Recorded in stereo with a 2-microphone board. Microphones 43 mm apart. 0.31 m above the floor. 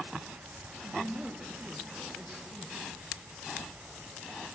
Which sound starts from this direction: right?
A woman speaking, at 0.8 s.